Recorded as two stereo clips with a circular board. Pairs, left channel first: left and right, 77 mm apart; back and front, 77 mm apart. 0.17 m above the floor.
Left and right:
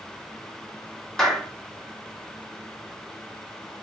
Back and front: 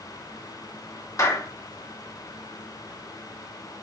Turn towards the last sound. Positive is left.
turn(degrees=170)